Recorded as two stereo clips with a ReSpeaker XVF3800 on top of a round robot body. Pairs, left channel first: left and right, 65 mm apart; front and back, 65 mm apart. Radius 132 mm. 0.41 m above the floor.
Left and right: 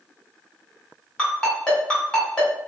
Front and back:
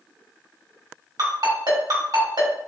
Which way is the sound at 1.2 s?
165° left.